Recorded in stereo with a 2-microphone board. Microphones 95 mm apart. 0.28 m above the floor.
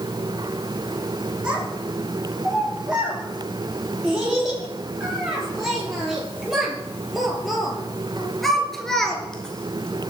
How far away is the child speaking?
About 7 m.